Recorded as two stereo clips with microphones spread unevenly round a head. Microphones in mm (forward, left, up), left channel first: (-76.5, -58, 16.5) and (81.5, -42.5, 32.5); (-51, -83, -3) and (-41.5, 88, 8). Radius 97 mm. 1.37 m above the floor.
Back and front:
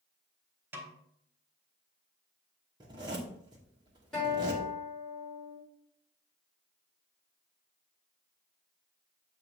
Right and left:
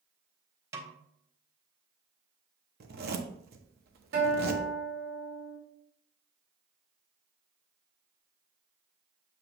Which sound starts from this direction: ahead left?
A snare drum, at 0.7 s.